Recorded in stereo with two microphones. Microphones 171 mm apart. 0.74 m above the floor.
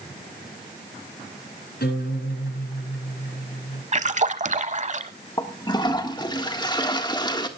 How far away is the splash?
About 0.7 m.